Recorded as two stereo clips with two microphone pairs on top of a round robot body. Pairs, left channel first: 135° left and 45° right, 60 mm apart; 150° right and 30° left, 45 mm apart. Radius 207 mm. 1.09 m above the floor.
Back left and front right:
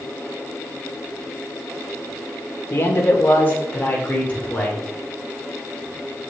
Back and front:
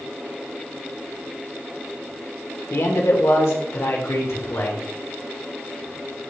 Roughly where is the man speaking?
Behind.